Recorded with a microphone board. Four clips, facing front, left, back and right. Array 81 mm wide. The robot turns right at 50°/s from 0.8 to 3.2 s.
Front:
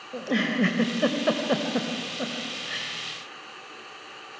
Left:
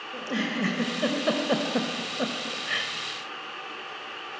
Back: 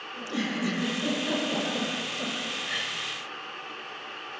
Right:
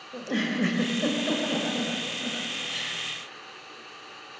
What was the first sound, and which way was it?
A giggle, straight ahead.